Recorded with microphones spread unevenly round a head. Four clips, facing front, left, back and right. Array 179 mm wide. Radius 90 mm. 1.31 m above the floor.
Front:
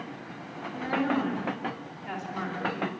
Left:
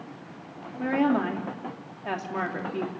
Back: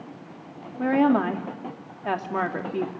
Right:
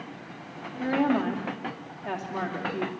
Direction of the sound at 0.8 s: Straight behind.